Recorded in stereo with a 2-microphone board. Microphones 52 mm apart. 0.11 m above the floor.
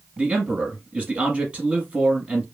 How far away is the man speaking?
About 1.1 m.